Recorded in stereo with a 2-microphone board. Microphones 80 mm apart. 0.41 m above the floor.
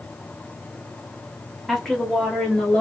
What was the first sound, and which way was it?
A woman speaking, centre (ahead or behind).